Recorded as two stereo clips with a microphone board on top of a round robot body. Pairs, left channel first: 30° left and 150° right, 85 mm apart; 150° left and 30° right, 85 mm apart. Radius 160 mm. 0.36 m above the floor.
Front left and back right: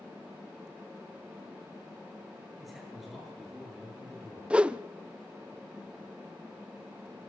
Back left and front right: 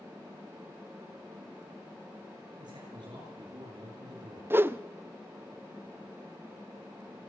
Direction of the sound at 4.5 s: 80° right.